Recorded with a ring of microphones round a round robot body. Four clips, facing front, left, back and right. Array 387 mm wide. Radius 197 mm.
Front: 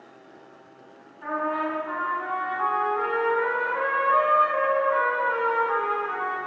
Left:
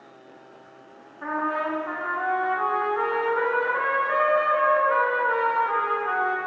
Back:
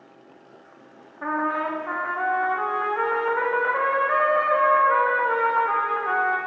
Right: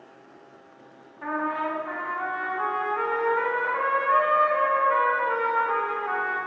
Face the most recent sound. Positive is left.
turn(degrees=165)